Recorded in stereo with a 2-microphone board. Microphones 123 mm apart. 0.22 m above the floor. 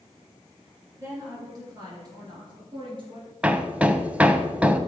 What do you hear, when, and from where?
1.0 s a woman speaking: 25° right (ahead or behind), 4 m; by 3.3 s 45° right (ahead or behind), 3.5 m
3.4 s hammering: 10° right (ahead or behind), 0.6 m